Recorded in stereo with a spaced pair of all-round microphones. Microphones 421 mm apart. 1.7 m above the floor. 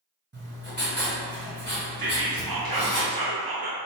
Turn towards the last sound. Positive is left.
turn(degrees=-60)  # may be behind; listen again after turning